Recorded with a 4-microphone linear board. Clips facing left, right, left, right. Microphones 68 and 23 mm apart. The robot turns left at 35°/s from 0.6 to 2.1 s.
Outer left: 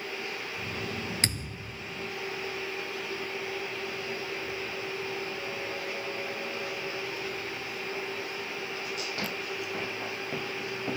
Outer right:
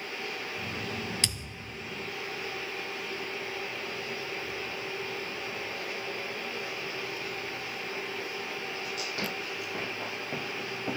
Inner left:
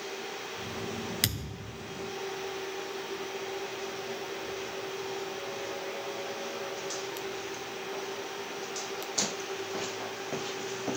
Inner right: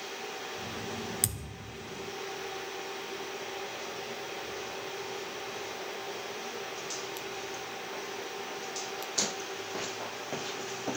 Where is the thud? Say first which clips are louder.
Outer left 3 dB, inner left 5 dB; 40° left (ahead or behind); by 1.9 s 60° left (ahead or behind).